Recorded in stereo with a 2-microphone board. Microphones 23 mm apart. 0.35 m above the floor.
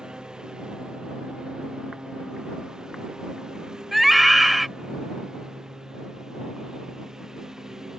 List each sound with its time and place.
0.0 s a lawn mower: 30° right (ahead or behind); by 8.0 s 15° right (ahead or behind)
3.9 s a scream: 5° right (ahead or behind)